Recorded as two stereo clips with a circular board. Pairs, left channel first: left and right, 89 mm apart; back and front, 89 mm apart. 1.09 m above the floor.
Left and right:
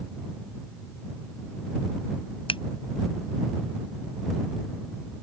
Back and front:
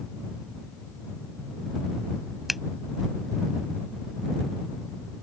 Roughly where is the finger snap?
Left.